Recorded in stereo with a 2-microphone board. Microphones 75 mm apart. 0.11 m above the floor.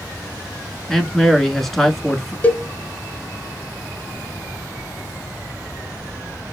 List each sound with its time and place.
0.9 s a man speaking: 5° left (ahead or behind), 1.1 m
2.4 s a cowbell: 20° left (ahead or behind), 0.7 m